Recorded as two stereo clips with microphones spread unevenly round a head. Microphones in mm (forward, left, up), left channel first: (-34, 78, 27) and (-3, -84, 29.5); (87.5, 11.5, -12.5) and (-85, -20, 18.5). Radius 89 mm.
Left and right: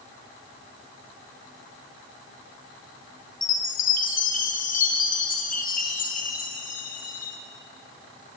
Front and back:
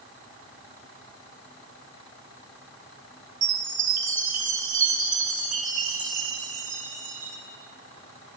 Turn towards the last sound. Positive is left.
turn(degrees=140)